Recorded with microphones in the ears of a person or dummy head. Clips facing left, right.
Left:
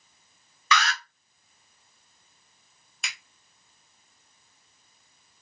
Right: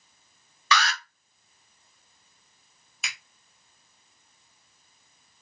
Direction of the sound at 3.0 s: Centre (ahead or behind).